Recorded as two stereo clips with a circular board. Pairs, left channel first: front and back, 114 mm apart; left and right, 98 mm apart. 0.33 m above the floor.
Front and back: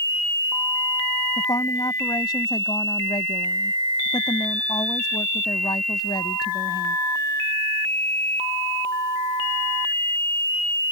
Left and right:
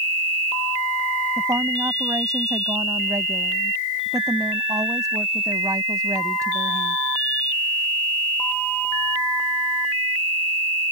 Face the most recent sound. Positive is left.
turn(degrees=-45)